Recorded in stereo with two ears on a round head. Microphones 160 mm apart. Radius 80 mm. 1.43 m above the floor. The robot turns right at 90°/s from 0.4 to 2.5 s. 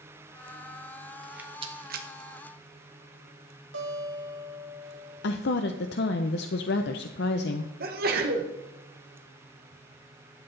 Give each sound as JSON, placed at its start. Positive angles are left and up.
{"t": 1.2, "sound": "a rattle", "side_deg": 5, "distance_m": 1.2}
{"t": 3.7, "sound": "a guitar", "side_deg": -80, "distance_m": 2.5}
{"t": 5.2, "sound": "a woman speaking", "side_deg": 65, "distance_m": 0.6}
{"t": 7.8, "sound": "a sneeze", "side_deg": -55, "distance_m": 1.5}